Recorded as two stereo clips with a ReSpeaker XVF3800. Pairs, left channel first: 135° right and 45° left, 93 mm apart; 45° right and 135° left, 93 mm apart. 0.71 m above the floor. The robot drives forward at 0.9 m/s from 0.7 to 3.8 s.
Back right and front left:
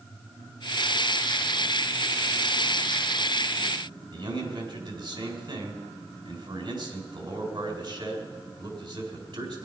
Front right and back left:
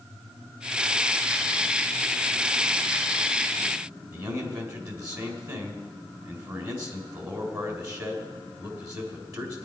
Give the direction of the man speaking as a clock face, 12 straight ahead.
9 o'clock.